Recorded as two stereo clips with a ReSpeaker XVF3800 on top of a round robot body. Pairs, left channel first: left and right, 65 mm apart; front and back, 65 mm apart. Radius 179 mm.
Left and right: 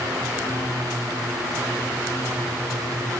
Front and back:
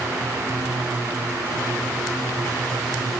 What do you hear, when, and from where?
Only background noise.